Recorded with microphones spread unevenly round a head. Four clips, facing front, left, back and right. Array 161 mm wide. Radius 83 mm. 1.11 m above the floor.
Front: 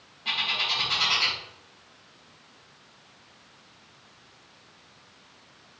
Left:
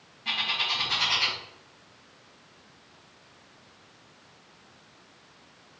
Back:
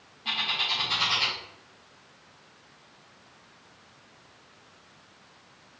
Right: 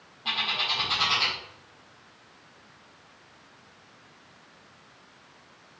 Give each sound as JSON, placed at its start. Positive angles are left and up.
{"t": 0.2, "sound": "a bird", "azimuth_deg": -105, "distance_m": 1.4}